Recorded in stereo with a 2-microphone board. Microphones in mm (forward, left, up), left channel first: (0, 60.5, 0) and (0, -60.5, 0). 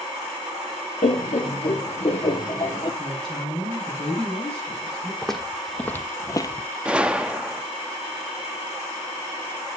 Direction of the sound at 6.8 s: 10° right (ahead or behind).